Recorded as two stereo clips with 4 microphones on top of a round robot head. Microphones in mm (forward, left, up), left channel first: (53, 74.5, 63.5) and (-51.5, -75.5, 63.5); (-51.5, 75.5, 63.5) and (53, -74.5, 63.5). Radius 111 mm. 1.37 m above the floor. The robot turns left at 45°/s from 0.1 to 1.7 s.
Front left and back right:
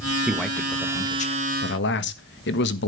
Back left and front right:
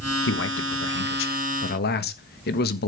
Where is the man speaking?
155° left, 1.3 m; by 2.9 s 85° left, 1.3 m.